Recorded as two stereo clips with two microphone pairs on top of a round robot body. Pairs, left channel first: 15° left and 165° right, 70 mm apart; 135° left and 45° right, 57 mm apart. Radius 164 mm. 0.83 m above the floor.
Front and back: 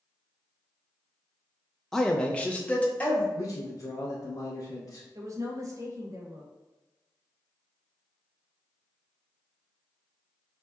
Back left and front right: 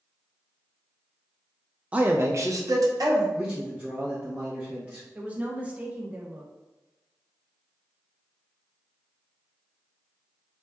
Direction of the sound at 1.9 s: 30° left.